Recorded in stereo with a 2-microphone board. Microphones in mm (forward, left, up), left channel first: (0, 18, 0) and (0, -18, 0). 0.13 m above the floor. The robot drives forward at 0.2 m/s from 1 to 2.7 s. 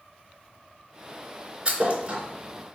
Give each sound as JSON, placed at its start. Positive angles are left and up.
{"t": 1.6, "sound": "a thud", "side_deg": -35, "distance_m": 0.5}